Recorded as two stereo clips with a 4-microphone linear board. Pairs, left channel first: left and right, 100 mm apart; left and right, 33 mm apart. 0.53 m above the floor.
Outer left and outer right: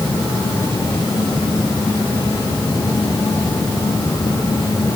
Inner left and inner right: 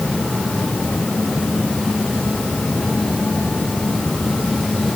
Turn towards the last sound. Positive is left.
No sound to turn to.